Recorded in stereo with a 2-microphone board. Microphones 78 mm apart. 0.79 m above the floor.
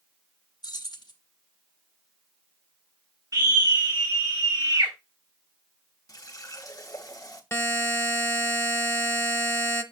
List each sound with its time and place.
0.6 s keys jangling: 60° left (ahead or behind), 1.0 m
3.3 s a scream: 50° right (ahead or behind), 1.8 m
6.1 s a running tap: 50° left (ahead or behind), 1.0 m
7.5 s a buzzer: 30° left (ahead or behind), 0.7 m